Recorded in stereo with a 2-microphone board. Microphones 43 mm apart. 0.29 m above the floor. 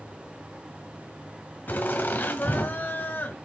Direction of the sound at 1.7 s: 45° left (ahead or behind).